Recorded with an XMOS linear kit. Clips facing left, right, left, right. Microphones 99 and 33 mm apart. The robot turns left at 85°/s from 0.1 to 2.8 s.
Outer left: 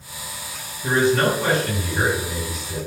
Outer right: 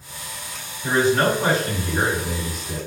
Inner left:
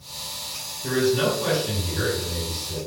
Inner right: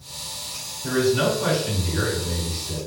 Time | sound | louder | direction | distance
0.8 | a man speaking | even, inner right 1 dB | 25° left | 1.9 m